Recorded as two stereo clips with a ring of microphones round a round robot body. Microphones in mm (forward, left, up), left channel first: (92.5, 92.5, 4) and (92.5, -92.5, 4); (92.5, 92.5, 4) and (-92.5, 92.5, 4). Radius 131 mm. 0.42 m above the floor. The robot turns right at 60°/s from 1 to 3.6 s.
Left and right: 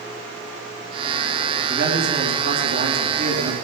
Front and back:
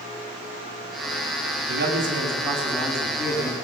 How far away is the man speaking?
About 3.5 m.